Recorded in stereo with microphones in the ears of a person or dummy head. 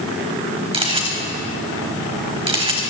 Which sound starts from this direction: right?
A camera shutter, at 0.7 s.